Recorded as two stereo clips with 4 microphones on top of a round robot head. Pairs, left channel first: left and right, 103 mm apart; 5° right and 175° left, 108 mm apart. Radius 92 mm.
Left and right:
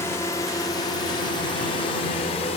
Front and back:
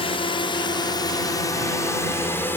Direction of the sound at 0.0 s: 25° left.